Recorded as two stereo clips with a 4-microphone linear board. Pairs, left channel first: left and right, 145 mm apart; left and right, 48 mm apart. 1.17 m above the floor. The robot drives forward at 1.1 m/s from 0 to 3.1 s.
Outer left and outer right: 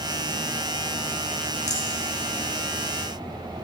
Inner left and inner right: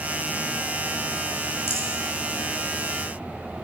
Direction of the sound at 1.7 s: 50° left (ahead or behind).